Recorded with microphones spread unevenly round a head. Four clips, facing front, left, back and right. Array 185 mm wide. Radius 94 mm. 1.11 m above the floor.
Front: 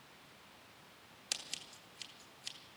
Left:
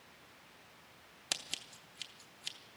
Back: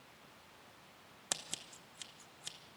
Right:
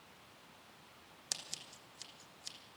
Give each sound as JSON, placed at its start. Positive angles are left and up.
{"t": 1.3, "sound": "scissors", "azimuth_deg": 150, "distance_m": 0.9}